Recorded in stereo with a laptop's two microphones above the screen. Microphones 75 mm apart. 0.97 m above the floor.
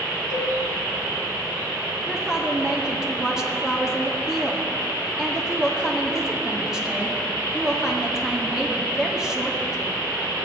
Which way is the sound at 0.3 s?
70° right (ahead or behind).